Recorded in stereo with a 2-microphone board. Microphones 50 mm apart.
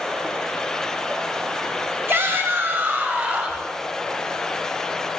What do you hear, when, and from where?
2.1 s a shout: 50° right (ahead or behind), 1.3 m; by 3.6 s 30° right (ahead or behind), 1.4 m